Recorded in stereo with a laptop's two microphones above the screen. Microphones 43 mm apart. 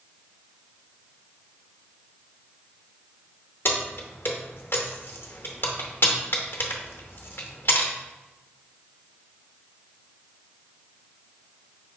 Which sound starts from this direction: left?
Keys jangling, at 3.6 s.